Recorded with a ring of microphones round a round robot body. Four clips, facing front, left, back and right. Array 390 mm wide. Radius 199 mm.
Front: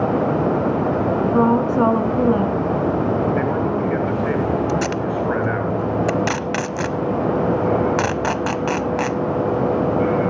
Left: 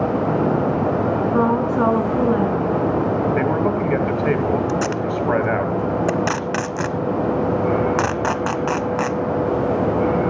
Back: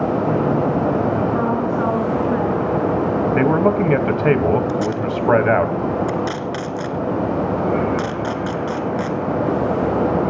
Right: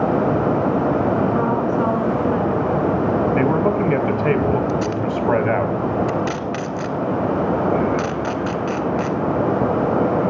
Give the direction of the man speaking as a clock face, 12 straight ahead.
6 o'clock.